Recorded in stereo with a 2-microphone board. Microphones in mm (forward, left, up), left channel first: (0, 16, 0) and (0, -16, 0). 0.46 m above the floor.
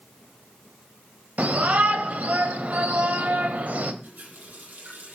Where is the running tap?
80° right, 9.5 m.